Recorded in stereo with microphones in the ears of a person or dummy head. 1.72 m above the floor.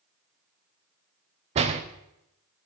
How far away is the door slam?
About 0.6 m.